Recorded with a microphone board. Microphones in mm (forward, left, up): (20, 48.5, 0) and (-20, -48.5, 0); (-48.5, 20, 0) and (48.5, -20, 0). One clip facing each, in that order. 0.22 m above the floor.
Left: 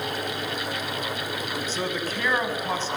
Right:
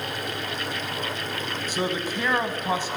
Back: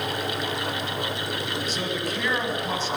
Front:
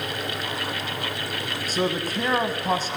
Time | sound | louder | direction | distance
1.7 | a man speaking | right 4 dB, front 3 dB | 40° right | 1.3 m